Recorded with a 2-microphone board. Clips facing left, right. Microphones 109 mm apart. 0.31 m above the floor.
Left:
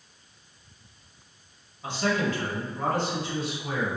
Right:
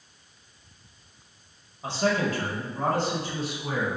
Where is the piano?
I don't hear a piano.